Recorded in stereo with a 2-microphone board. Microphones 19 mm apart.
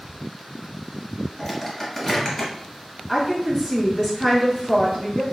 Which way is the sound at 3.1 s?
Centre (ahead or behind).